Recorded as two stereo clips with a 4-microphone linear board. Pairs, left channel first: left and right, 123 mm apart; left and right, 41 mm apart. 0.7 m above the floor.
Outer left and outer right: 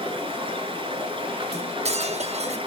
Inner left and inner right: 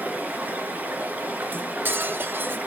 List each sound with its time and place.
0.0 s running water: 50° right (ahead or behind), 3 m
1.5 s cutlery clinking: 60° right (ahead or behind), 0.7 m